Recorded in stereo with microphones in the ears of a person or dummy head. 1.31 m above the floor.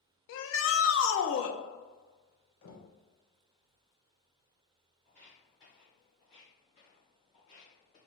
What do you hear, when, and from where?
0.3 s a shout: 70° left (ahead or behind), 0.7 m
2.6 s knocking: 80° left, 1.2 m
5.0 s footsteps: 15° left (ahead or behind), 1.9 m; by 8.0 s 40° left (ahead or behind), 3.5 m